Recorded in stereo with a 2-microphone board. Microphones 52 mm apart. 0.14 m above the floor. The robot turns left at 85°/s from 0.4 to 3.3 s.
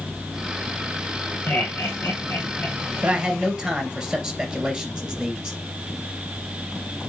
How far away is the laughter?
About 4.5 m.